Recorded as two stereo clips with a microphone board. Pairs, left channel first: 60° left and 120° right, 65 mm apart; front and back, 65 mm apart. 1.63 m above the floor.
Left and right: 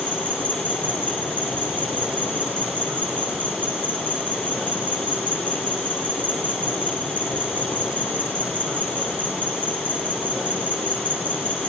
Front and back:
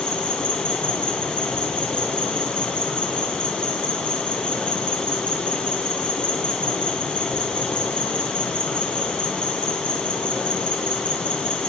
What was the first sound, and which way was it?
An insect, 65° right.